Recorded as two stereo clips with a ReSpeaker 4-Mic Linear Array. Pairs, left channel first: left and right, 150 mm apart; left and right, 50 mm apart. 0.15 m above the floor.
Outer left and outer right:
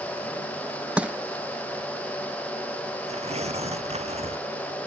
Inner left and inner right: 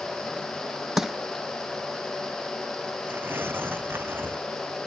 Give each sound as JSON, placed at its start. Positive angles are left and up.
{"t": 1.0, "sound": "crushing", "side_deg": -10}
{"t": 3.1, "sound": "tearing paper", "side_deg": -45}